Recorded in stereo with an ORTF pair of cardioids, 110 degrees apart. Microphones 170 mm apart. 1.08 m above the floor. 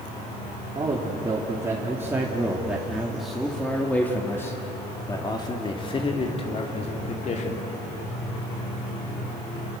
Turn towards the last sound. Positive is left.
turn(degrees=45)